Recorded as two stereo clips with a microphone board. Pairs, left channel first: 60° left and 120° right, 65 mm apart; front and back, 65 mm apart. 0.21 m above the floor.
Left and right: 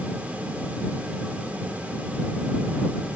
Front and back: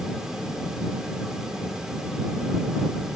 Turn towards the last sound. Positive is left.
No sound to turn to.